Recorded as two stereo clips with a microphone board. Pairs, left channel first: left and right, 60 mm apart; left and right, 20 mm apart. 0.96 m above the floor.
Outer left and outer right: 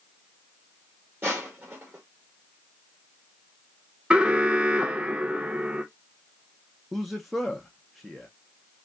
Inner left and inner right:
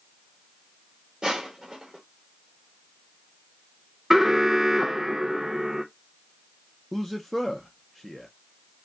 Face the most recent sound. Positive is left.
turn(degrees=0)  # may be behind; listen again after turning